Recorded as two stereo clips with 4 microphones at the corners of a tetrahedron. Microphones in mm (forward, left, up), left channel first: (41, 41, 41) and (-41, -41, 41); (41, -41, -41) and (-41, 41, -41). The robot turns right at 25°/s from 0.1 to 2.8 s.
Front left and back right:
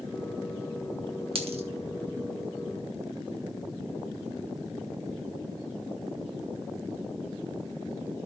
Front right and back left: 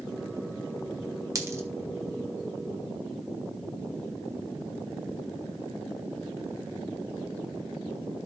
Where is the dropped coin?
165° right, 1.6 m; by 1.6 s 160° right, 1.6 m.